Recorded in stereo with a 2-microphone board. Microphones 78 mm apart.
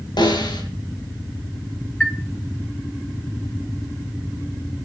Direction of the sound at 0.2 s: 70° left (ahead or behind).